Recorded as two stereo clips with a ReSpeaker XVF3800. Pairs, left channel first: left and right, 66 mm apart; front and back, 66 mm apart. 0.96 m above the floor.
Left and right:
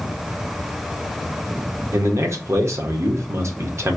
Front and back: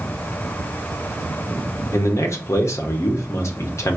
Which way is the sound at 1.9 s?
45° right.